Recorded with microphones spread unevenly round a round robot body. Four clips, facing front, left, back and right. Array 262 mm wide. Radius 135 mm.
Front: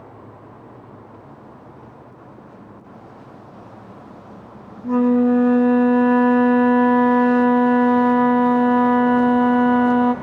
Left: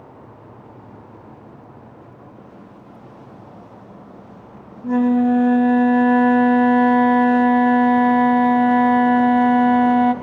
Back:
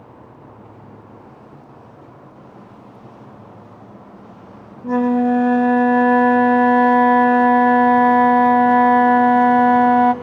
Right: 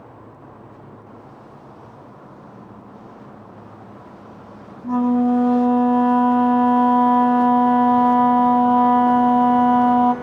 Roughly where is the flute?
Left.